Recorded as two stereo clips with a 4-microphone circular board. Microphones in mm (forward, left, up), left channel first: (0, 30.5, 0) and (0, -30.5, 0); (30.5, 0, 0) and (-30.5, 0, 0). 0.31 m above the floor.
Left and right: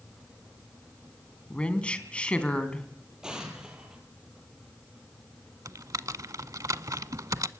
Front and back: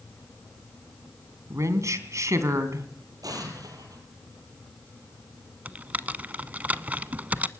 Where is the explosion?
170° right, 5 m.